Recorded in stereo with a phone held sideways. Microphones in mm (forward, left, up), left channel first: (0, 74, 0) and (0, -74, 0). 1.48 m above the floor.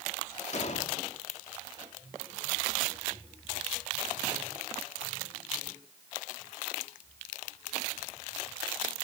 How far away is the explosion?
About 1.9 m.